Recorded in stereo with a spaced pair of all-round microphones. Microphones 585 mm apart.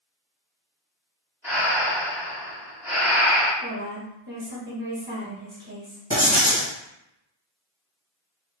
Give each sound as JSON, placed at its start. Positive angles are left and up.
{"t": 1.4, "sound": "breathing", "side_deg": -5, "distance_m": 1.2}
{"t": 3.6, "sound": "a woman speaking", "side_deg": -20, "distance_m": 1.5}
{"t": 6.1, "sound": "writing", "side_deg": -5, "distance_m": 2.0}